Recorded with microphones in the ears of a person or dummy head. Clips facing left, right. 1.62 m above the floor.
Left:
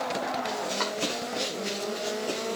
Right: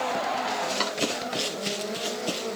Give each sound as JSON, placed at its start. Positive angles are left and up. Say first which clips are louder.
{"t": 0.5, "sound": "running footsteps", "louder": "right 1 dB", "side_deg": -20, "distance_m": 1.6}